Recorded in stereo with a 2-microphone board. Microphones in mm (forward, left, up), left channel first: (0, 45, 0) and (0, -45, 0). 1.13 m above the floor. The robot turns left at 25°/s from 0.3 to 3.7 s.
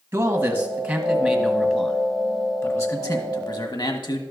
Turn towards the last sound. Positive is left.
turn(degrees=120)